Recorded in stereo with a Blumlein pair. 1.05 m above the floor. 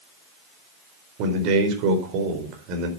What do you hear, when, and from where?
1.2 s a man speaking: 40° right, 4.5 m